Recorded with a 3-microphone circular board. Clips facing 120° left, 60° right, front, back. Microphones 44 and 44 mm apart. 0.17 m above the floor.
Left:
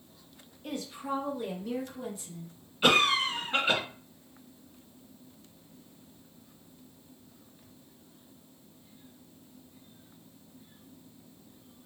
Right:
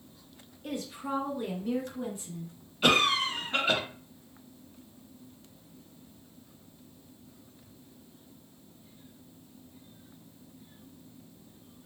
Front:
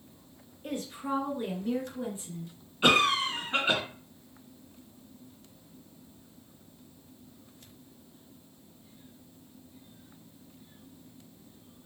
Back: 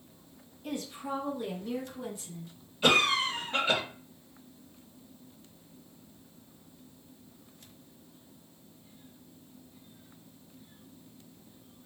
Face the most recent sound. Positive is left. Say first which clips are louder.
# left 1 dB, front 1 dB
turn(degrees=35)